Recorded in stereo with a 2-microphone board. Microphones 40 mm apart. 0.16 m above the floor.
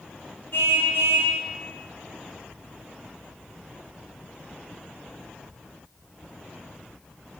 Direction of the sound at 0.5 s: 55° left (ahead or behind).